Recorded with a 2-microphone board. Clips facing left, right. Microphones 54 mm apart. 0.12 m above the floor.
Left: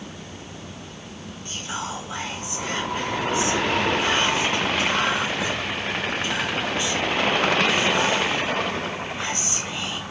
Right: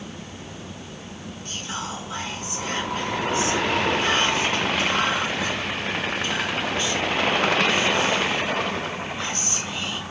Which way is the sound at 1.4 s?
15° left (ahead or behind).